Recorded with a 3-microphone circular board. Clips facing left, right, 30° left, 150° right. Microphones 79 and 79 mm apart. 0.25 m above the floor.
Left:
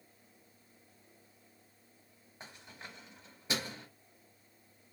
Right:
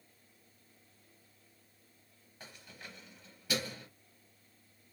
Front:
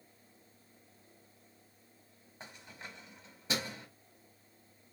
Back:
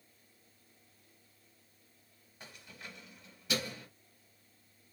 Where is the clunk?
I don't hear a clunk.